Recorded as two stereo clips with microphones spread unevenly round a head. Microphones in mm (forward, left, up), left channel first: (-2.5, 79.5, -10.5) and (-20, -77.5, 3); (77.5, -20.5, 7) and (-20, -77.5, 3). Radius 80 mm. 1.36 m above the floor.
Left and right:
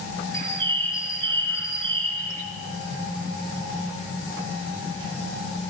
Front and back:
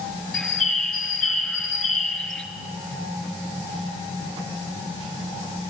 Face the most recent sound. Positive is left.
turn(degrees=-55)